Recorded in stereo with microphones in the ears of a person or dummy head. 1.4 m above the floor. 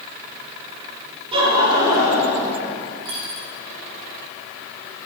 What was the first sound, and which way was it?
Laughter, 30° right (ahead or behind).